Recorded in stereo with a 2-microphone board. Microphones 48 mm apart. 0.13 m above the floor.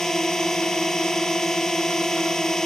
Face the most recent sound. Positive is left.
turn(degrees=10)  # may be behind; listen again after turning